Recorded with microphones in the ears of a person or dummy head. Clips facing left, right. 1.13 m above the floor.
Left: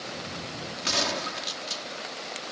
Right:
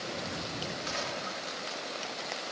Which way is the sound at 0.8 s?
85° left.